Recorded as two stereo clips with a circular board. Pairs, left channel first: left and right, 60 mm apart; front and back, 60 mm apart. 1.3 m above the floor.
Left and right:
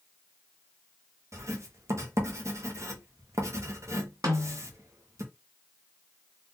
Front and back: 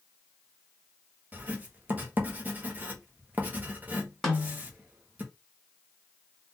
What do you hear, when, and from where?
1.3 s writing: 120° right, 1.4 m
4.2 s a snare drum: 85° right, 2.5 m